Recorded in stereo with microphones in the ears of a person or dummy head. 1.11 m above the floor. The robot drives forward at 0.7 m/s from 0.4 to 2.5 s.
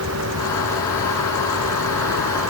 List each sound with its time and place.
0.0 s a vehicle: 85° right; by 2.5 s 75° right (ahead or behind)